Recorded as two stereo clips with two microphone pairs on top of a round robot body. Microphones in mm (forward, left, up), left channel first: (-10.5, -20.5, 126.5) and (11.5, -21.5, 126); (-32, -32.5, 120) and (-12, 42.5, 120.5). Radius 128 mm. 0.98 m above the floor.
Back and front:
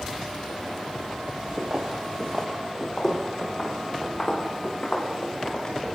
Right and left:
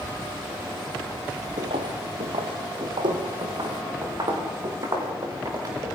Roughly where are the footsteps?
Ahead left.